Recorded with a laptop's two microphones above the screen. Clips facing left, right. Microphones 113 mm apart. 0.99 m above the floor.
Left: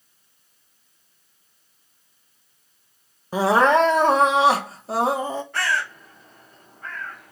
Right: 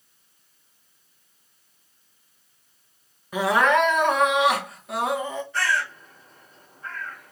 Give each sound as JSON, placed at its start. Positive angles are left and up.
{"t": 3.3, "sound": "crying", "side_deg": 35, "distance_m": 0.7}
{"t": 5.5, "sound": "a bird", "side_deg": 70, "distance_m": 2.5}